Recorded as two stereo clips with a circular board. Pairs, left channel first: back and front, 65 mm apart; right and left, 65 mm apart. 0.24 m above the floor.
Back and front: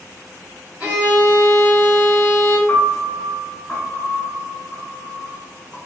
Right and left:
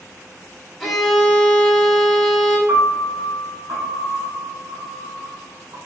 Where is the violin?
5° right, 1.4 m.